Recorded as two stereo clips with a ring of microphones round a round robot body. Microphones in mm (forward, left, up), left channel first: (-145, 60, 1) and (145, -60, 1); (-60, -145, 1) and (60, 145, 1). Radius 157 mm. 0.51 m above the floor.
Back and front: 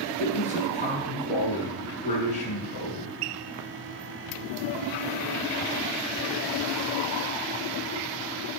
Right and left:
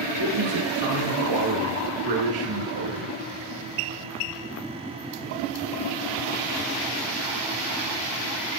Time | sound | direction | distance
0.2 | a man speaking | 90° left | 8 m